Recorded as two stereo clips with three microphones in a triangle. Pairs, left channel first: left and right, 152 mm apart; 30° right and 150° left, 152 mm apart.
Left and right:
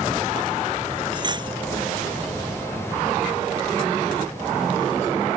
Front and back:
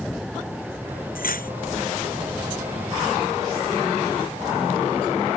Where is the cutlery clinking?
30° right.